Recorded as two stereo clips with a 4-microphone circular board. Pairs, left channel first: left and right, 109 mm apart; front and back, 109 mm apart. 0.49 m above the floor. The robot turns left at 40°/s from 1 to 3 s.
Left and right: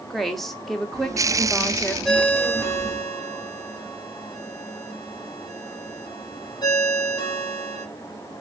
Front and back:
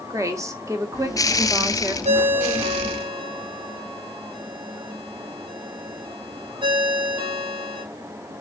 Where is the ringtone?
Straight behind, 1.4 m; by 7.8 s 140° left, 1.4 m.